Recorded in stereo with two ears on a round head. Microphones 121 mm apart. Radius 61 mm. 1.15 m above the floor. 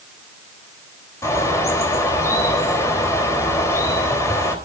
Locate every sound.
1.2 s a bird: 20° left (ahead or behind), 3.5 m